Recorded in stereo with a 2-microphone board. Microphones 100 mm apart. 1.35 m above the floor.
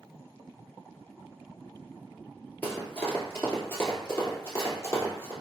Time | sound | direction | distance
2.6 | running footsteps | 20° left (ahead or behind) | 1.4 m